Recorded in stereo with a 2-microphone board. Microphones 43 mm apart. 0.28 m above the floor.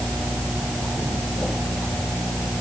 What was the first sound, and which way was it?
Only background noise.